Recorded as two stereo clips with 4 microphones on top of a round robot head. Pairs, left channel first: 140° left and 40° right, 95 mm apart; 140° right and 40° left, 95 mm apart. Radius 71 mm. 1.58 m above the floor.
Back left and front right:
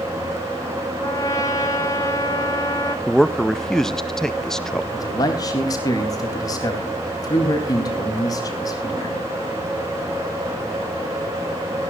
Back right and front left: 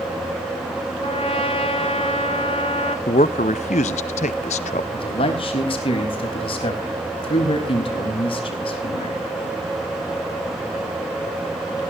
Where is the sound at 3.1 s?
135° right, 0.6 m.